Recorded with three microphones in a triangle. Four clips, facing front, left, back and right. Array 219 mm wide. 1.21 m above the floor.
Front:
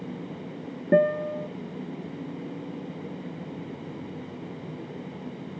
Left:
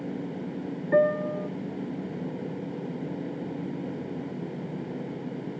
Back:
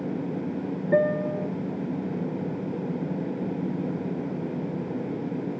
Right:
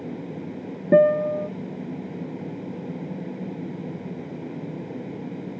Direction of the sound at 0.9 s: 65° right.